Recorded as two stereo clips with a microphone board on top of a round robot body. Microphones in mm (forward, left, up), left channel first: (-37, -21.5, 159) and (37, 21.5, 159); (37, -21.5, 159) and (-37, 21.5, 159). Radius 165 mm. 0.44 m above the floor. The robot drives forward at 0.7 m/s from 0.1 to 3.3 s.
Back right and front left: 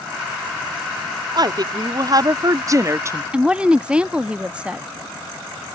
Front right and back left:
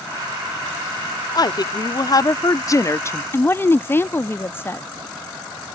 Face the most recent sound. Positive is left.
turn(degrees=-30)